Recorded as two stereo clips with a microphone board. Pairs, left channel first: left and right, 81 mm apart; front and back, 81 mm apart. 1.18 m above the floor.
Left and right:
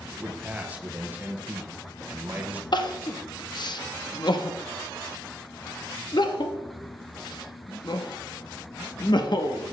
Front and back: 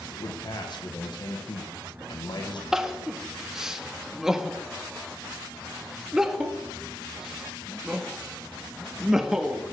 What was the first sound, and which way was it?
A man speaking, 20° right.